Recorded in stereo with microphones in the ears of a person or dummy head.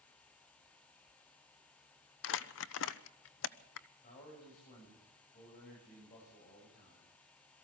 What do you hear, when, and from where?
2.2 s crumpling: 75° left (ahead or behind), 0.8 m
4.0 s a man speaking: 45° left (ahead or behind), 8 m